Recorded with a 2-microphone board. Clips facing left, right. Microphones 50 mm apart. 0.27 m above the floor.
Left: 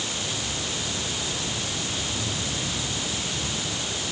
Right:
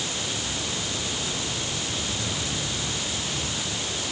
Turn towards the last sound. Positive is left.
No sound to turn to.